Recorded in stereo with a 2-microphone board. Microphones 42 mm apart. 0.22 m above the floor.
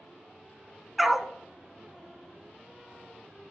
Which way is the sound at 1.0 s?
Centre (ahead or behind).